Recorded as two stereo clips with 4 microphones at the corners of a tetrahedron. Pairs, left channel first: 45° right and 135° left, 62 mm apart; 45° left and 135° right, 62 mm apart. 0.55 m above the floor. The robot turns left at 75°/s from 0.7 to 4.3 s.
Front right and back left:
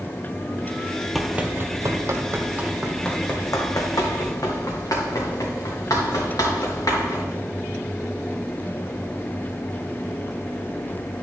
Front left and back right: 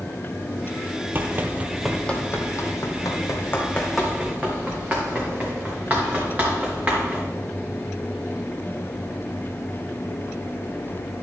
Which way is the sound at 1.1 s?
135° right.